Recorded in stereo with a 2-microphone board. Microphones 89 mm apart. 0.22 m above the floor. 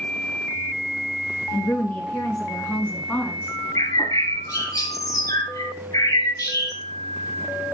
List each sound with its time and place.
1.5 s a woman speaking: 20° left (ahead or behind), 3.5 m; by 3.5 s 10° left (ahead or behind), 2 m
3.8 s a bird: 40° left (ahead or behind), 1.5 m